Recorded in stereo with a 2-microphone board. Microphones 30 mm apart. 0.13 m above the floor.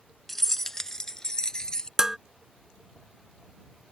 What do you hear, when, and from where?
0.3 s keys jangling: 5° left (ahead or behind); by 1.9 s 25° left (ahead or behind)
2.0 s dishes clattering: 15° right (ahead or behind)